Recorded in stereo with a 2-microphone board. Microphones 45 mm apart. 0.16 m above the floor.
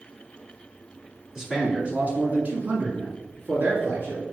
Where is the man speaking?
15° right (ahead or behind), 1.6 m; by 4.2 s 60° right (ahead or behind), 3 m.